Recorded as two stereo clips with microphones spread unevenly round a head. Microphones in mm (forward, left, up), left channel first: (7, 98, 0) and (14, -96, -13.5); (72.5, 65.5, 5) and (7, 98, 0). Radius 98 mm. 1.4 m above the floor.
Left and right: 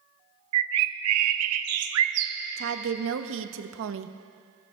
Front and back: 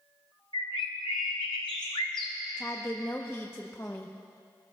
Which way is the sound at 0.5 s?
90° right.